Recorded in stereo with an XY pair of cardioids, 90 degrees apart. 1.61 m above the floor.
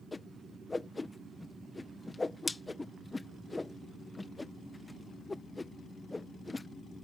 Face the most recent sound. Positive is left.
turn(degrees=25)